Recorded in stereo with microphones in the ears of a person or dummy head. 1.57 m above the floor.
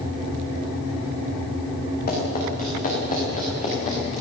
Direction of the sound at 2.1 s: 45° left (ahead or behind).